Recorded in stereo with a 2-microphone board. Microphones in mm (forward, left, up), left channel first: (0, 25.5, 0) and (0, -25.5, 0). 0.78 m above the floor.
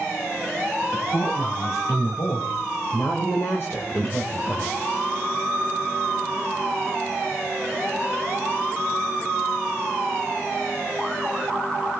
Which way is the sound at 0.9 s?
80° left.